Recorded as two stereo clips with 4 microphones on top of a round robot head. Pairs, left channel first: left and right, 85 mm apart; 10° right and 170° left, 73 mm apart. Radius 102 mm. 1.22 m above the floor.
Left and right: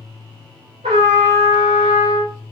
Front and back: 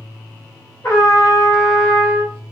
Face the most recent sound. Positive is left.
turn(degrees=-80)